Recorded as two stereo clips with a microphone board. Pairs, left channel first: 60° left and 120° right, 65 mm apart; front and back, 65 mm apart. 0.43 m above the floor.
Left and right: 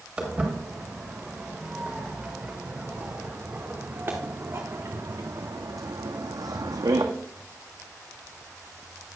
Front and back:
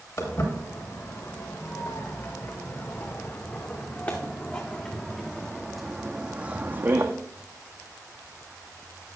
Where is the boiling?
No boiling in this recording.